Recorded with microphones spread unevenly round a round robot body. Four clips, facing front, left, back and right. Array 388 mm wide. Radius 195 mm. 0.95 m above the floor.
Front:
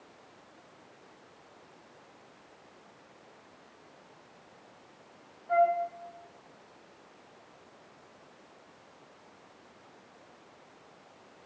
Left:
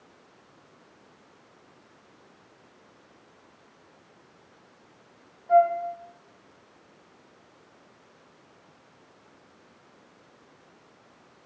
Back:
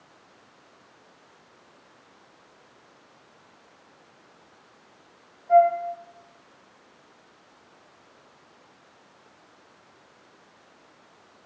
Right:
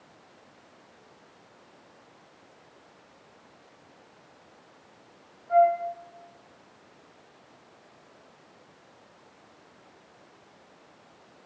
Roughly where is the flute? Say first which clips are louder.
Left 1 dB, back 8 dB; left.